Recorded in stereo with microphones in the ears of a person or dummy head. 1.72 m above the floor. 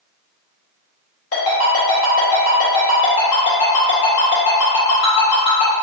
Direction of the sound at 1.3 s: 45° left (ahead or behind).